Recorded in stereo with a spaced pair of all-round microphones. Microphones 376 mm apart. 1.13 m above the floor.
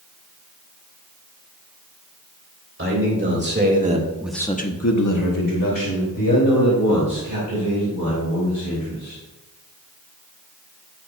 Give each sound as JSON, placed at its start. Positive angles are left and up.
{"t": 2.8, "sound": "a man speaking", "side_deg": -35, "distance_m": 3.0}